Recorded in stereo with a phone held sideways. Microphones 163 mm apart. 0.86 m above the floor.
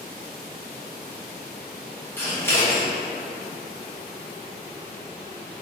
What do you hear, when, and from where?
2.2 s scissors: 15° left (ahead or behind), 1.1 m